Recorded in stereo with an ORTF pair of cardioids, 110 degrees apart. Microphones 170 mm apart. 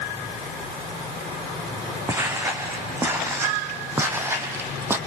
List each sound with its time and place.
2.1 s footsteps: 15° right, 4 m